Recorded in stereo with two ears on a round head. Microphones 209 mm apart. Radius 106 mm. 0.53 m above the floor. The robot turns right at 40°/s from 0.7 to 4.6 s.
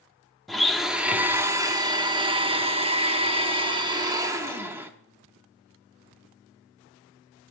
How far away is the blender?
About 0.7 m.